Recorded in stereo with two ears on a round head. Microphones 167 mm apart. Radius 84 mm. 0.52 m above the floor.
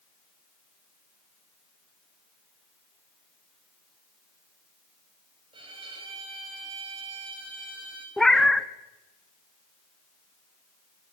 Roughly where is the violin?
Right.